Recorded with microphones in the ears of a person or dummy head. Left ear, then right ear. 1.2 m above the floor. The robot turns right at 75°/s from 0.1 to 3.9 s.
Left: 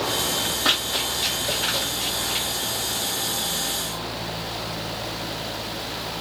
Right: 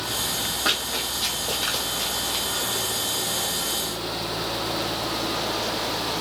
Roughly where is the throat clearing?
No throat clearing in this recording.